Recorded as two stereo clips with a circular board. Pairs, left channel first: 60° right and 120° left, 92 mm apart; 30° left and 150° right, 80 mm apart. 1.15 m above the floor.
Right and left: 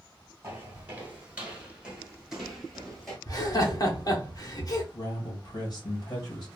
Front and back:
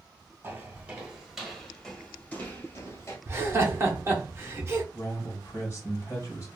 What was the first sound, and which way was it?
Footsteps, 175° left.